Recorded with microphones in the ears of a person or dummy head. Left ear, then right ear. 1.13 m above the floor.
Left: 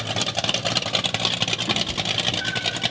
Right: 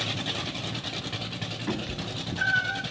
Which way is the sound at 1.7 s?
Centre (ahead or behind).